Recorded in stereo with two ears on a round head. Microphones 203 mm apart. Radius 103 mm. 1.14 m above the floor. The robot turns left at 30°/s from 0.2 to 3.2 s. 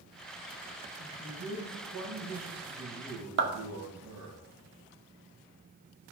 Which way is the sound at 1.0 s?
45° right.